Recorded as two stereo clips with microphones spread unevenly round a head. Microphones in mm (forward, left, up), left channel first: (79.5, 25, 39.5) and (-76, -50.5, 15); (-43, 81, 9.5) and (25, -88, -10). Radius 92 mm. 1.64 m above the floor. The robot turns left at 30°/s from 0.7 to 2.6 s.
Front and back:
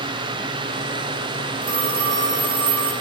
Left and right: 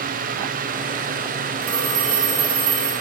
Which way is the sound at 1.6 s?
90° right.